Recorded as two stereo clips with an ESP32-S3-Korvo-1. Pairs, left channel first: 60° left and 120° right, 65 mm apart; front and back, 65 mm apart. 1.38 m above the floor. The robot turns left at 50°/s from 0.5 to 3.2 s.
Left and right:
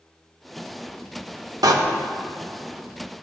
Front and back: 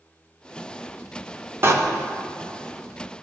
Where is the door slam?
130° right, 0.9 m; by 1.7 s 135° right, 0.9 m.